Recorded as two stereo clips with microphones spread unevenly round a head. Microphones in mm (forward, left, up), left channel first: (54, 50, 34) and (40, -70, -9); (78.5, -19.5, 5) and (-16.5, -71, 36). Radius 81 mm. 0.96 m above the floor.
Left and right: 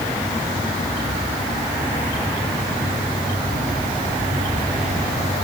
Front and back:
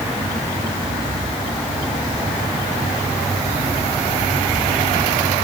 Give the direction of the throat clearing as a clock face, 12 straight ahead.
No throat clearing in this recording.